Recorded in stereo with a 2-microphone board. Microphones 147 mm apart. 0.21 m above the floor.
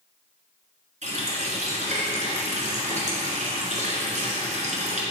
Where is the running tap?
55° right (ahead or behind), 1.6 m.